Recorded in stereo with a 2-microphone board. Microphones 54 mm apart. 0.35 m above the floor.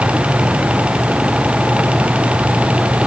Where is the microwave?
No microwave in this recording.